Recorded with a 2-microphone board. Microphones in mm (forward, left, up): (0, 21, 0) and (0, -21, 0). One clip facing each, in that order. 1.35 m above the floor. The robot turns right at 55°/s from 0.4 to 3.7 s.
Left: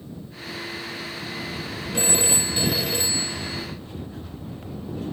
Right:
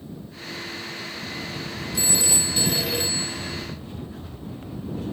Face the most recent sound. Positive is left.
turn(degrees=-130)